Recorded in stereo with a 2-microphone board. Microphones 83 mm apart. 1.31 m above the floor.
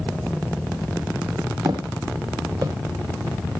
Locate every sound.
1.6 s footsteps: 60° right (ahead or behind), 2.5 m; by 2.8 s 50° right (ahead or behind), 2 m